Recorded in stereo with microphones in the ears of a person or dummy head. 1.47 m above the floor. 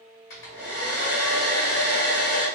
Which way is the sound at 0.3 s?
65° left (ahead or behind).